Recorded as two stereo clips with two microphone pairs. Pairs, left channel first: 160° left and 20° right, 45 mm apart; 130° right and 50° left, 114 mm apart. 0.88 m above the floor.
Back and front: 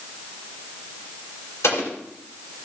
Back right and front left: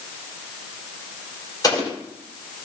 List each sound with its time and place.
1.6 s an explosion: 175° left, 4 m